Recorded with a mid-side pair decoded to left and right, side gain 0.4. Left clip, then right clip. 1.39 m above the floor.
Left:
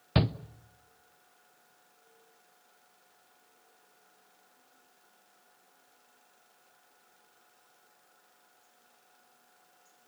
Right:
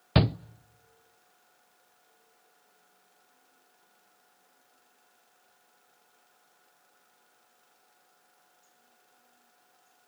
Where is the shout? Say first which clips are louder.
Right 4 dB; 35° right, 0.6 m.